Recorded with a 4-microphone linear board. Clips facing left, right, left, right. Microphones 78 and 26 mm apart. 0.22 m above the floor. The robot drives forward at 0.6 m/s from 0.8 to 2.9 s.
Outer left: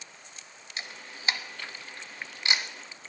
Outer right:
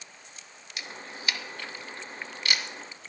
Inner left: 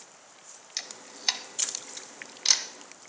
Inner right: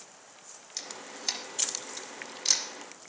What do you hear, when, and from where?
0.8 s a camera shutter: 35° left (ahead or behind), 1.3 m; by 2.6 s 25° left (ahead or behind), 1.6 m